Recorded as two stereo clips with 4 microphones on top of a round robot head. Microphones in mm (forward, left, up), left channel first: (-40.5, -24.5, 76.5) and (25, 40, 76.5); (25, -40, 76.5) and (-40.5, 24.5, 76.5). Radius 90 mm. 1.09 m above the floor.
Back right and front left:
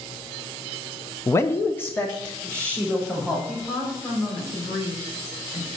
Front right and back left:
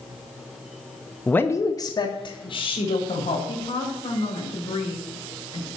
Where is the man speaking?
110° right, 0.8 m; by 3.4 s 55° right, 2.5 m.